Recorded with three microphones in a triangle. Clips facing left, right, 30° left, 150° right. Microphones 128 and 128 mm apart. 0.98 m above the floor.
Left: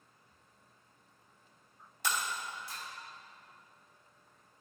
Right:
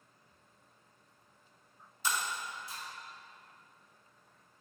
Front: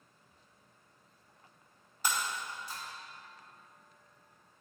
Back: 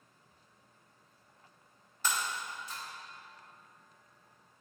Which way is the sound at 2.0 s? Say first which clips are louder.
Even, even; 105° left.